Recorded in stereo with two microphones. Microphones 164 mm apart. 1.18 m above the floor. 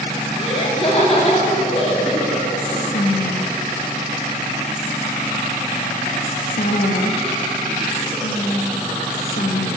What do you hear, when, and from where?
0.4 s laughter: 40° left (ahead or behind), 2.5 m
2.6 s whispering: 70° left (ahead or behind), 1.4 m